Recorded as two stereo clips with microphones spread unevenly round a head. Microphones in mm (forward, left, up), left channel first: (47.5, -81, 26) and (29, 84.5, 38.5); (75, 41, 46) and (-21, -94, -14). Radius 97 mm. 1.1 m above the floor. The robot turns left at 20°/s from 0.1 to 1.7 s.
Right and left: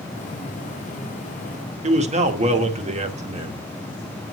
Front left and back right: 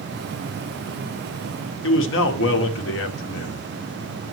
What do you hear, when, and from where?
1.8 s a man speaking: 45° left, 1.7 m